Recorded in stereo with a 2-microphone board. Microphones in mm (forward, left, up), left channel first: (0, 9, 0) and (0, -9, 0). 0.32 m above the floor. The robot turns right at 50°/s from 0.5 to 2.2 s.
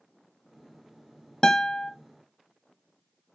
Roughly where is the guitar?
Left.